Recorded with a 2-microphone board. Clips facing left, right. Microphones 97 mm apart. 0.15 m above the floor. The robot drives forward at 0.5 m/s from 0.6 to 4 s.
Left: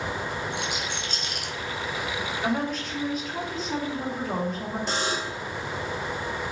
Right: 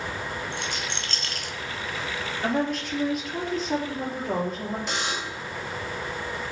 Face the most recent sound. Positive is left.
turn(degrees=40)  # may be behind; listen again after turning